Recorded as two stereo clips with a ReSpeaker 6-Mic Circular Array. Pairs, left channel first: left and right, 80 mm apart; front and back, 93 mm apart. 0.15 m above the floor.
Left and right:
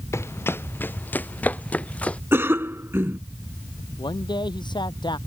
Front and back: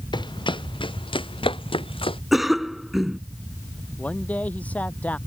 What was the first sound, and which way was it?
Running footsteps, 35° left.